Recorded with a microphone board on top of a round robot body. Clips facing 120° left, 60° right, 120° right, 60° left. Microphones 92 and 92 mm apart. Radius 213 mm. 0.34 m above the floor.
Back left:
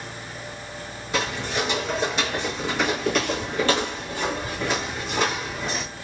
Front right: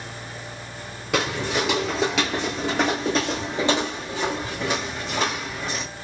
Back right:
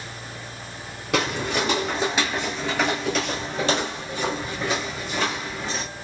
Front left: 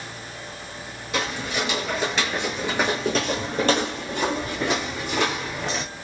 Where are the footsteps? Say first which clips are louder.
Front right 2 dB, back right 3 dB; 90° right, 0.7 m; by 5.8 s 30° left, 2.0 m.